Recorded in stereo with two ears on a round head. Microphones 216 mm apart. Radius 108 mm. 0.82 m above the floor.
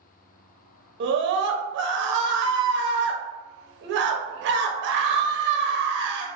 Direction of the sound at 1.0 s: 50° right (ahead or behind).